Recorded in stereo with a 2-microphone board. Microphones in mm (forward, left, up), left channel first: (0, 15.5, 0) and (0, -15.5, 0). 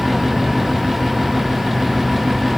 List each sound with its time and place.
Only background noise.